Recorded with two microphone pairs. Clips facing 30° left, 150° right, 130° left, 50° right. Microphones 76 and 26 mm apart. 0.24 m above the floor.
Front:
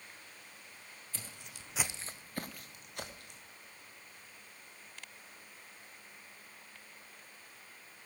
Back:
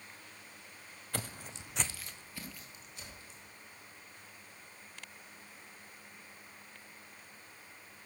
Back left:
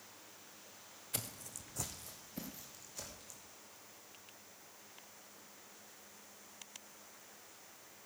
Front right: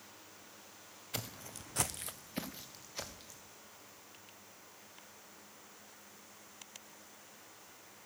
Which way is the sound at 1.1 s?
125° right.